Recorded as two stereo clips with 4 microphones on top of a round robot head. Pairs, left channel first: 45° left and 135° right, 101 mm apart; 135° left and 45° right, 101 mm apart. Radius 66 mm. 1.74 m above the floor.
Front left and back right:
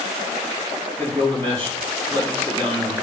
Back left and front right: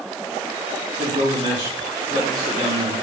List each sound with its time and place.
1.0 s a man speaking: 95° right, 4.5 m